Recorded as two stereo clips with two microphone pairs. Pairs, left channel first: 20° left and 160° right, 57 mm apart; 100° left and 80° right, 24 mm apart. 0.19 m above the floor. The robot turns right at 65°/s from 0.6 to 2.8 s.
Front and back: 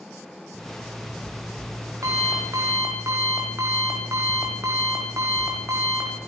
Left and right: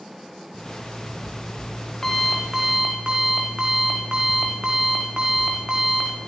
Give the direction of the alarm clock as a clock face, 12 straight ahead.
9 o'clock.